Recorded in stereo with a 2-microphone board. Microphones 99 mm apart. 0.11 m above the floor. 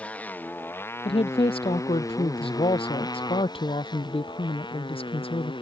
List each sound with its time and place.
0.0 s a motorcycle: 15° left (ahead or behind); by 5.6 s 55° left (ahead or behind)
1.1 s a woman speaking: 70° left (ahead or behind)